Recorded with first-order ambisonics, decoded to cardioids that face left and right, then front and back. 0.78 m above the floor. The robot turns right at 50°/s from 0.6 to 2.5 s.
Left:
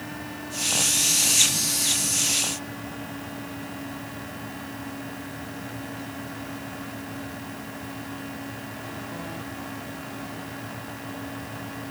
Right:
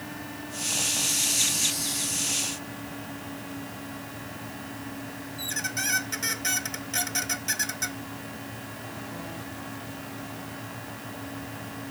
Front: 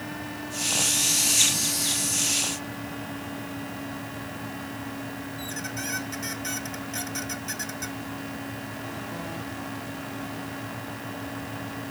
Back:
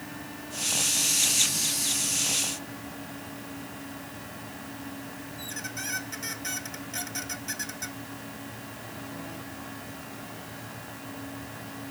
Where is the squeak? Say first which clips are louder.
Right 6 dB, front 1 dB; 90° right.